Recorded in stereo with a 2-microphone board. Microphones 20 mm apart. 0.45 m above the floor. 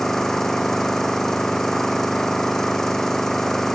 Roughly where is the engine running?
Left.